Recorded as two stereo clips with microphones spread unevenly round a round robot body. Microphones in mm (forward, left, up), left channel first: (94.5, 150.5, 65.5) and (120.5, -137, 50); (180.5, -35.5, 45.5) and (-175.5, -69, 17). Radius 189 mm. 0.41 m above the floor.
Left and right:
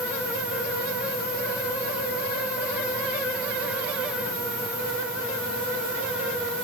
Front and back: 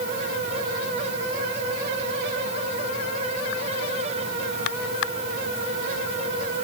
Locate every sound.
Only background noise.